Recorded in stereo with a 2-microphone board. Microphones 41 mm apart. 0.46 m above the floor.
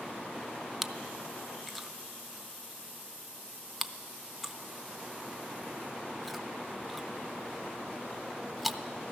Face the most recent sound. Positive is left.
turn(degrees=-5)  # may be behind; listen again after turning